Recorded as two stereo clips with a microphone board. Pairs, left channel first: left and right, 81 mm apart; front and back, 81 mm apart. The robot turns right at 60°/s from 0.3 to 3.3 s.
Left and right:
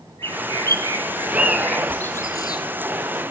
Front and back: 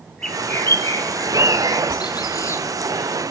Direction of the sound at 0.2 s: 80° right.